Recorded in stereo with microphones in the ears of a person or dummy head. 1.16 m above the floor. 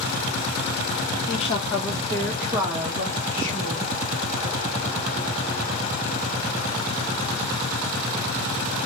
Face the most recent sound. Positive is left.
turn(degrees=-35)  # may be behind; listen again after turning